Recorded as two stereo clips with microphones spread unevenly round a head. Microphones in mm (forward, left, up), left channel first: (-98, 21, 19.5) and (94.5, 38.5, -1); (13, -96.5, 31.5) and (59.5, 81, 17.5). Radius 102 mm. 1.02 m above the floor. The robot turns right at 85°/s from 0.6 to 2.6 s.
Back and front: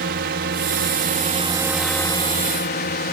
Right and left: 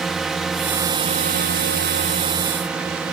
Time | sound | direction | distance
0.0 | a drone | 10° right | ?